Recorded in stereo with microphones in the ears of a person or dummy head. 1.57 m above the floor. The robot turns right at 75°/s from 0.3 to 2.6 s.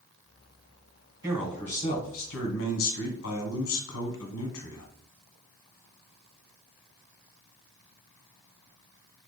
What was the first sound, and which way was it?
A man speaking, 20° right.